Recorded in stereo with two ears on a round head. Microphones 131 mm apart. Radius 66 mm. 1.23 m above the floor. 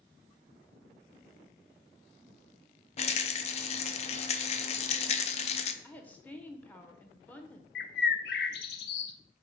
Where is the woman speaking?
10° left (ahead or behind), 0.8 m.